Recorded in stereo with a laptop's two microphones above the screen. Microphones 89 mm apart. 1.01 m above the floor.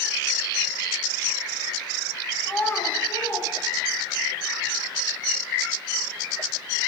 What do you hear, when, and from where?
2.4 s a child speaking: 15° left (ahead or behind), 1.2 m; by 4.3 s 65° left (ahead or behind), 3 m